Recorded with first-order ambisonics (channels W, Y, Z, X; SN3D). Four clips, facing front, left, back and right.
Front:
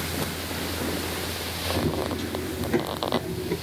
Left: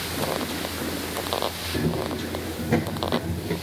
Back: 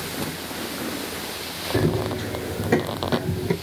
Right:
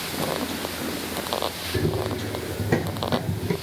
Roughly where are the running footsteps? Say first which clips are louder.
Right 1 dB, back 5 dB; behind.